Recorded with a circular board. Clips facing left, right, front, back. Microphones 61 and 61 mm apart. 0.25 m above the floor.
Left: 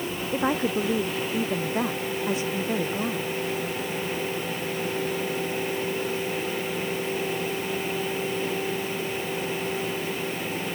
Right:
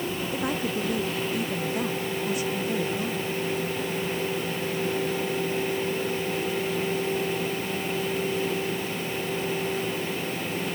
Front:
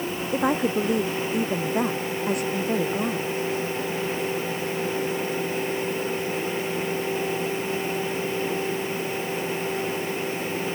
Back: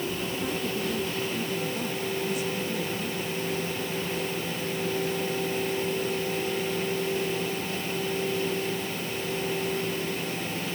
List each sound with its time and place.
0.3 s a woman speaking: 25° left